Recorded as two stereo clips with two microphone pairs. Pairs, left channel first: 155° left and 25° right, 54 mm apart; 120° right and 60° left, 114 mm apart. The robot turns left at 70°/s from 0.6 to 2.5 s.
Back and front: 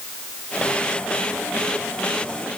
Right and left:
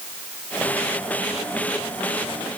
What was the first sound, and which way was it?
Only background noise.